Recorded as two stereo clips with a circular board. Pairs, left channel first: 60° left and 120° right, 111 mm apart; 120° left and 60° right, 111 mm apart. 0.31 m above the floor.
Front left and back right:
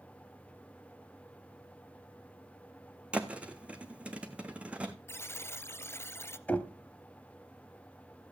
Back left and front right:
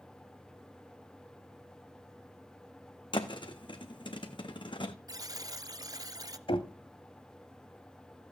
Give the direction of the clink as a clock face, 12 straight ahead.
No clink in this recording.